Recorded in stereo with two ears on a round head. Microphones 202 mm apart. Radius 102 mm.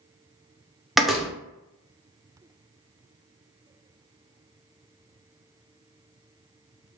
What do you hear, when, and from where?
1.0 s a door slam: centre (ahead or behind), 0.5 m